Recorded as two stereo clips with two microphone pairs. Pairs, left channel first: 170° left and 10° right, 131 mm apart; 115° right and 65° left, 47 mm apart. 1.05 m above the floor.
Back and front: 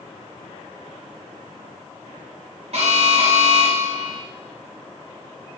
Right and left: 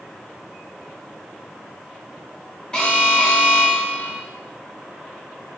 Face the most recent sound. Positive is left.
turn(degrees=-45)